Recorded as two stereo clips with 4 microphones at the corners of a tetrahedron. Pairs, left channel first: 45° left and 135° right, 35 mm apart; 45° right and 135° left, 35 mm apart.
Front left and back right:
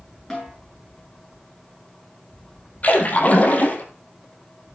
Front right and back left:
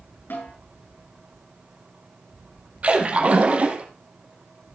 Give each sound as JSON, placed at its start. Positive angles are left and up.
{"t": 0.3, "sound": "a snare drum", "azimuth_deg": -35, "distance_m": 9.0}
{"t": 2.8, "sound": "a splash", "azimuth_deg": 85, "distance_m": 3.0}